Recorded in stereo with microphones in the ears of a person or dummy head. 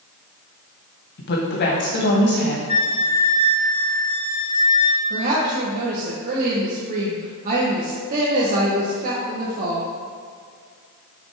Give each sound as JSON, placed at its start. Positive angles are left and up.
{"t": 1.2, "sound": "a woman speaking", "side_deg": 55, "distance_m": 1.8}
{"t": 2.7, "sound": "a flute", "side_deg": 25, "distance_m": 1.2}
{"t": 5.1, "sound": "a woman speaking", "side_deg": -45, "distance_m": 1.3}